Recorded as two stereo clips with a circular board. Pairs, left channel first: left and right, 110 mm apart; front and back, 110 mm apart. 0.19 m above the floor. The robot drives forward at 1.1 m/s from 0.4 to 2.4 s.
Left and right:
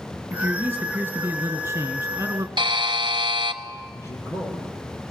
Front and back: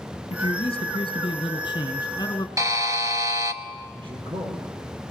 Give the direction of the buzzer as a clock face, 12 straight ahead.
4 o'clock.